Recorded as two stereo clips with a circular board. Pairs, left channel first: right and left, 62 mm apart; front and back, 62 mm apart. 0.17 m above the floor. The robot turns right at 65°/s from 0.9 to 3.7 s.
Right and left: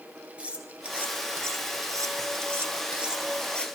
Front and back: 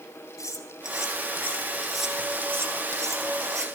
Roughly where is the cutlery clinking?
Ahead left.